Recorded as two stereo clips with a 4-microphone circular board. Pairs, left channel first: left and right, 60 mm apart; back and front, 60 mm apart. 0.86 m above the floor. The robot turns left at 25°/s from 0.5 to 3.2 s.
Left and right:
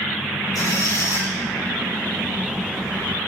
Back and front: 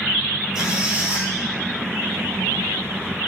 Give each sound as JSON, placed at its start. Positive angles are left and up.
{"t": 0.6, "sound": "a squeak", "azimuth_deg": 85, "distance_m": 6.5}